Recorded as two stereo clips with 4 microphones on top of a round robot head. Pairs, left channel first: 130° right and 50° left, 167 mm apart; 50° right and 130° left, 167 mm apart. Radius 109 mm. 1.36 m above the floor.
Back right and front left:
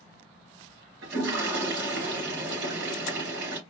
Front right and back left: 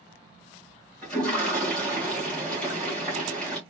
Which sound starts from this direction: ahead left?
A toilet flushing, at 1.0 s.